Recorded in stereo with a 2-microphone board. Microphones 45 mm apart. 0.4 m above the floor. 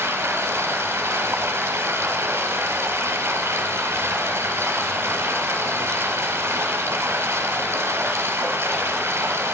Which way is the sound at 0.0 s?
75° right (ahead or behind).